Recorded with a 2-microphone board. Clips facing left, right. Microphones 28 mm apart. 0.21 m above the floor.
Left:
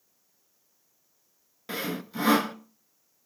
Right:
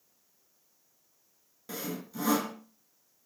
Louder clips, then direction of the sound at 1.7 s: Left 5 dB; 50° left (ahead or behind).